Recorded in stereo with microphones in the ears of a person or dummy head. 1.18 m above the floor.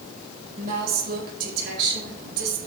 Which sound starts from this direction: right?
A woman speaking, at 0.6 s.